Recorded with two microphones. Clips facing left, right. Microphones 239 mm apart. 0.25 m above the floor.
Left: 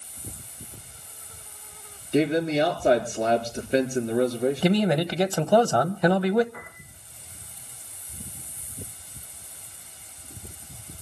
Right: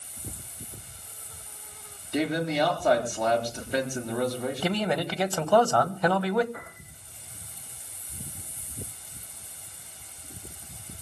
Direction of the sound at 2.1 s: 25° left (ahead or behind).